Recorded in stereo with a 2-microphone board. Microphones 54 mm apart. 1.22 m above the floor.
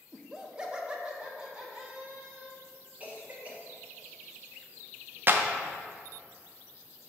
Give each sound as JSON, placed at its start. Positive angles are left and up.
{"t": 0.1, "sound": "laughter", "side_deg": -10, "distance_m": 0.6}
{"t": 3.0, "sound": "a cough", "side_deg": -25, "distance_m": 0.9}
{"t": 5.3, "sound": "a clap", "side_deg": -35, "distance_m": 0.5}